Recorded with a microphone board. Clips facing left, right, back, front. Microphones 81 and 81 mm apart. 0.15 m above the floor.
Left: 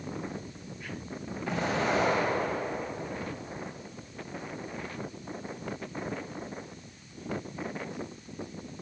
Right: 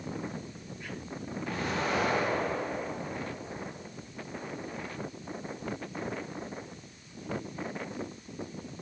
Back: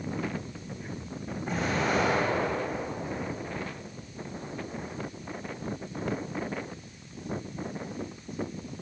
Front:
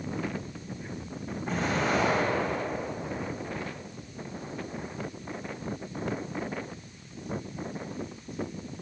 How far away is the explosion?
About 4 m.